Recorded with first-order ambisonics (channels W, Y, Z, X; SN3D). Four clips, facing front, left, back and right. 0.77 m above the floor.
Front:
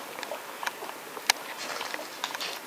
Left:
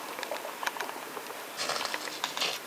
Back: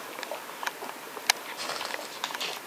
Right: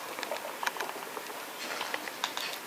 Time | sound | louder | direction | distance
1.6 | footsteps | left 4 dB, back 1 dB | 120° left | 1.4 m